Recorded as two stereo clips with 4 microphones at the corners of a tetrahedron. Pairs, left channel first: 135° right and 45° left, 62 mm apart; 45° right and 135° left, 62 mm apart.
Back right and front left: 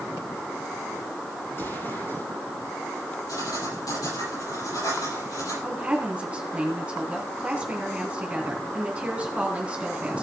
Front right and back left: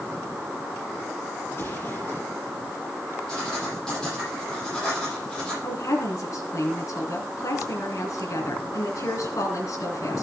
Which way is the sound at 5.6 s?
25° right.